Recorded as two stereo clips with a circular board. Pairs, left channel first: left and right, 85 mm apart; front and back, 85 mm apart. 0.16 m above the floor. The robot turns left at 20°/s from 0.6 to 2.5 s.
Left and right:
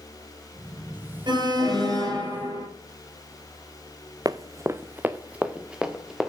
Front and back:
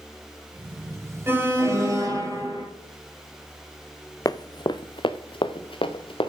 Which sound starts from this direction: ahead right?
Running footsteps, at 4.2 s.